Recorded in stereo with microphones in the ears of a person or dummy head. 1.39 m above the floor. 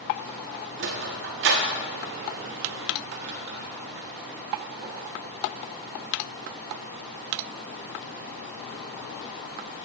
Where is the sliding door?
50° right (ahead or behind), 1.1 m.